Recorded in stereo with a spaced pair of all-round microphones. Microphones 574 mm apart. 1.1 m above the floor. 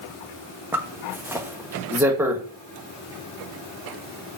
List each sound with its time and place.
0.7 s a zipper: 5° right (ahead or behind), 1.3 m